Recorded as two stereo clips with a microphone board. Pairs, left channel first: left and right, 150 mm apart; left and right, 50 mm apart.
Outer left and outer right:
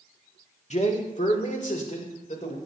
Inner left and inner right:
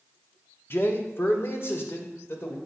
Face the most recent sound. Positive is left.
turn(degrees=55)  # may be behind; listen again after turning